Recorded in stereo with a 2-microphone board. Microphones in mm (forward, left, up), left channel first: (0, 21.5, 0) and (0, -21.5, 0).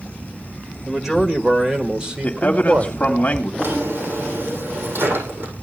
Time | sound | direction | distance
0.8 | a man speaking | centre (ahead or behind) | 2 m
2.2 | a man speaking | 35° left (ahead or behind) | 1.9 m
3.6 | a drawer | 55° right (ahead or behind) | 8.5 m